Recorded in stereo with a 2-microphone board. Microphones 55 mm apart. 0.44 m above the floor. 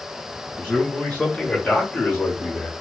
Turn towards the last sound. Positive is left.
turn(degrees=45)  # may be behind; listen again after turning